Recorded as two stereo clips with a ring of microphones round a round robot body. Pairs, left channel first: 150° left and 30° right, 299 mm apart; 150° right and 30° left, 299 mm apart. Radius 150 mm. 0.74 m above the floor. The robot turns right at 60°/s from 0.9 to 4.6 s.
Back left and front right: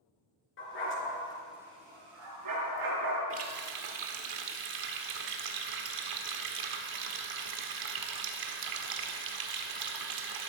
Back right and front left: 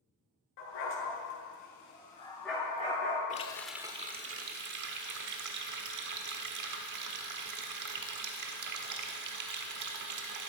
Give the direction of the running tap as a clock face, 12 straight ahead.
3 o'clock.